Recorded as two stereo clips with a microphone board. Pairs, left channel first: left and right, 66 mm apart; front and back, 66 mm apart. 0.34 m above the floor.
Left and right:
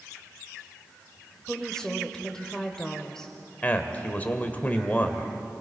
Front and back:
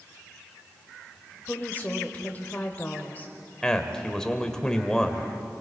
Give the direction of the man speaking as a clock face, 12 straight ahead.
10 o'clock.